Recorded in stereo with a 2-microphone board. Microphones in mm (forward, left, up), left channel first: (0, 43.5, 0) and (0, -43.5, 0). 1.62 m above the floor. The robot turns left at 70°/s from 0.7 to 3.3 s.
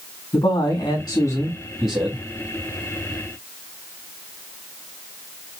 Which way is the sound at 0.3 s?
75° left.